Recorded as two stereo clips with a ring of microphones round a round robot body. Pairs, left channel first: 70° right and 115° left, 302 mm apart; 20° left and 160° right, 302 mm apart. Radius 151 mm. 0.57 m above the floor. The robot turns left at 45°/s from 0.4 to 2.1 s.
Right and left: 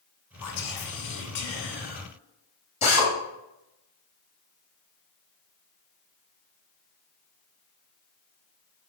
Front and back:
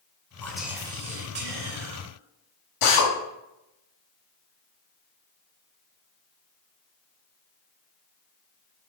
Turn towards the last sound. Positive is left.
turn(degrees=0)